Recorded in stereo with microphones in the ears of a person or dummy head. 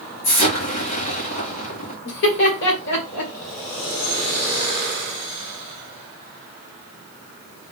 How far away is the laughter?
About 2 m.